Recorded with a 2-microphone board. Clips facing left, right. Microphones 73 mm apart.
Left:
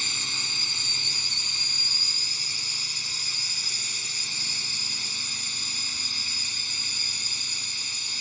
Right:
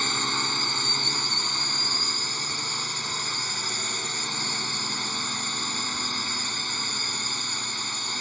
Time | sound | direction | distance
0.0 | a drone | 50° right (ahead or behind) | ?